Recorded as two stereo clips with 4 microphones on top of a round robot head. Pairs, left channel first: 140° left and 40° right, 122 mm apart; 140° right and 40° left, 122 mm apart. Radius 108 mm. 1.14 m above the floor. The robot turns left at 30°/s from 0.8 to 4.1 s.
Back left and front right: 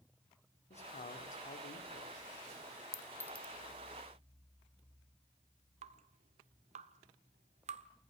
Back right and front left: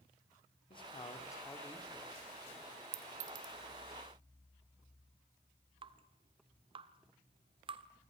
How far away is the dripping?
About 1.4 m.